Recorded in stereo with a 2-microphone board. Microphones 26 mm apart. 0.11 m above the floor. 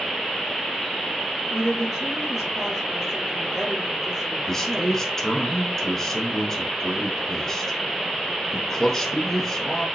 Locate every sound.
1.5 s a woman speaking: 20° right (ahead or behind), 1.4 m
4.5 s a man speaking: 15° left (ahead or behind), 1.1 m